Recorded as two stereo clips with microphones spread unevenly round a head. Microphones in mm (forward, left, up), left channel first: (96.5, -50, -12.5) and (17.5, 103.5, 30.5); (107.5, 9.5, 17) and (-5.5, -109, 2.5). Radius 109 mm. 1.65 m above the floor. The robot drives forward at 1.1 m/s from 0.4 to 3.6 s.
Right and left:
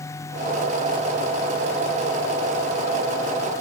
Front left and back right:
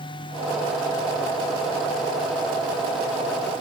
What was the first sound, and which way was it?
Only background noise.